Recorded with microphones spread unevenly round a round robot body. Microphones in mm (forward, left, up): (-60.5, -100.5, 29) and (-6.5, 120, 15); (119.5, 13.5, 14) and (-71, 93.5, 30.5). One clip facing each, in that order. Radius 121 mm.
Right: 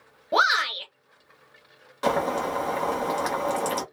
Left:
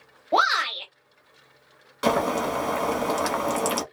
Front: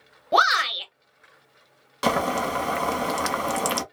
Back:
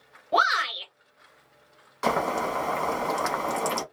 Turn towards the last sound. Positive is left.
turn(degrees=5)